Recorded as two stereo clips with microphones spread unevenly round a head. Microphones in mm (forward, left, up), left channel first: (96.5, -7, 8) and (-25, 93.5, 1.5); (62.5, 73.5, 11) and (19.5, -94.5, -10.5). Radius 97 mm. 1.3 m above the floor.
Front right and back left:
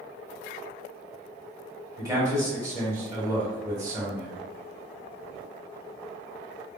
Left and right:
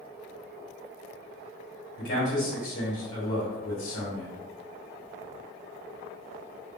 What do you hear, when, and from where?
2.0 s a man speaking: 70° left, 1.5 m